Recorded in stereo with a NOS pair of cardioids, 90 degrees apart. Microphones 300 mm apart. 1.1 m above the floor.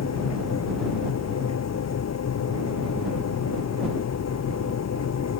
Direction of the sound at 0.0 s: 55° left.